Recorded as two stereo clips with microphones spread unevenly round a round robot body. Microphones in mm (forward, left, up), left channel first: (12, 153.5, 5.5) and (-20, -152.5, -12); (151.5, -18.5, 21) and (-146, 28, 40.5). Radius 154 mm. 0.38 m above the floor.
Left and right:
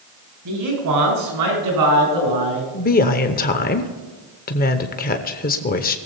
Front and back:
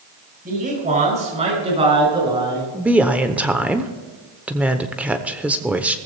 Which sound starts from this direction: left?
A woman speaking, at 2.7 s.